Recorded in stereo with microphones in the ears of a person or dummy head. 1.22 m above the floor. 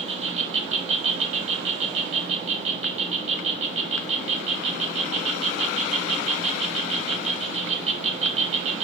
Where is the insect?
35° right (ahead or behind), 1.3 m.